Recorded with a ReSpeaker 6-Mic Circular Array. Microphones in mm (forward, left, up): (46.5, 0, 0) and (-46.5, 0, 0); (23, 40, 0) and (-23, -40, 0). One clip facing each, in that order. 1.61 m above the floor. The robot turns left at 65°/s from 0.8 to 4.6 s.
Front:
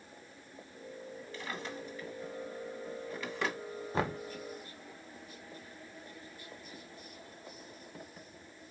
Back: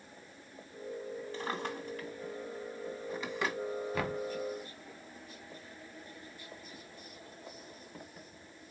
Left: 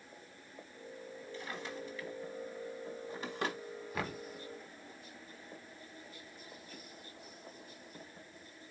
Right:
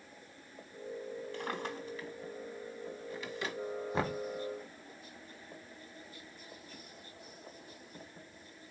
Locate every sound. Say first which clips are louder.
1.3 s a drawer: back 3 dB, right 3 dB; 125° right, 1.6 m; by 3.6 s 90° left, 1.6 m
3.9 s knocking: front 4 dB, right 5 dB; 55° right, 0.8 m; by 4.2 s 75° right, 0.8 m